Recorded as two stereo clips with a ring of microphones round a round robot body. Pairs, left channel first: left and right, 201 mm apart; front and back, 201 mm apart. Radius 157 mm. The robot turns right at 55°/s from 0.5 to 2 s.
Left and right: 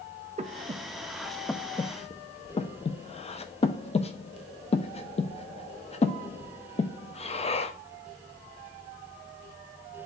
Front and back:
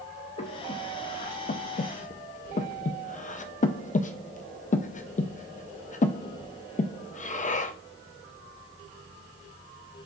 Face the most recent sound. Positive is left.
turn(degrees=40)